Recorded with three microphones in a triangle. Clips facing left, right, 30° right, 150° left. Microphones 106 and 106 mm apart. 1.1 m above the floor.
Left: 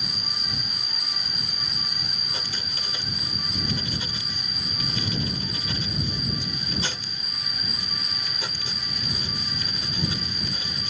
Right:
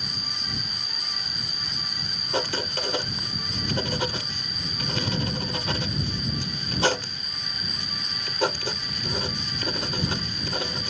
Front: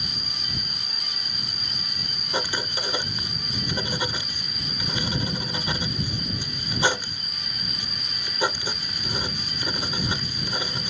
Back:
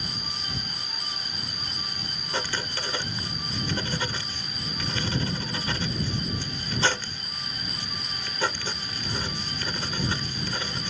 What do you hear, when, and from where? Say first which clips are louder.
0.0 s an insect: even, back 1 dB; 90° left
2.3 s writing: right 15 dB, front 3 dB; 105° right